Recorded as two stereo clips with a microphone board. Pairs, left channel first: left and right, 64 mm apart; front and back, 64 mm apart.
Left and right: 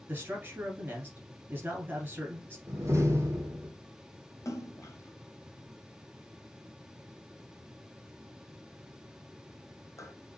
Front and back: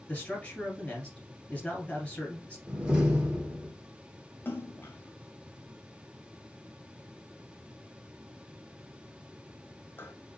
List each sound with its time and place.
0.1 s a man speaking: 60° right, 1.5 m
2.7 s a door slam: 115° right, 1.7 m
4.5 s a splash: 55° left, 0.7 m